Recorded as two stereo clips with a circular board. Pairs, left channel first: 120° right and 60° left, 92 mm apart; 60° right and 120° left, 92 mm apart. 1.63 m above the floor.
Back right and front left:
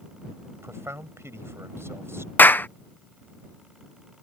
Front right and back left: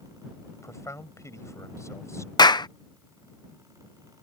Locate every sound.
0.6 s a man speaking: straight ahead
2.4 s a clap: 55° right